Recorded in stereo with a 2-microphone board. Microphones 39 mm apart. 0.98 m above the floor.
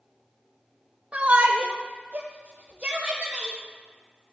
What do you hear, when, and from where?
1.1 s a shout: 30° right (ahead or behind), 1.1 m; by 3.6 s 25° right (ahead or behind), 2.5 m